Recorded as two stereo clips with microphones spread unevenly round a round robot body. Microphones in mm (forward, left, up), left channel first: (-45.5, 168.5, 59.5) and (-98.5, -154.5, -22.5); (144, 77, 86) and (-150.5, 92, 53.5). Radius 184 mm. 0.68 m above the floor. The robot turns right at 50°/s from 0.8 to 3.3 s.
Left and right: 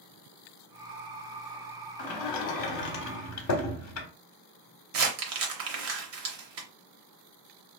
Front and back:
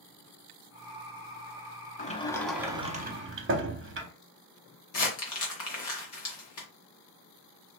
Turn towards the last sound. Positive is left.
turn(degrees=-40)